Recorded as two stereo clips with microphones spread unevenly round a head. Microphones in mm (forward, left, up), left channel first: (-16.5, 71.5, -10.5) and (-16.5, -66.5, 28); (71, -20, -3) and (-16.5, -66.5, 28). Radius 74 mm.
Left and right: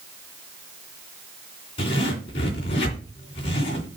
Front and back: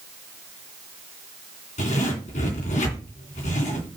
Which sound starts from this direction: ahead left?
A zipper, at 1.8 s.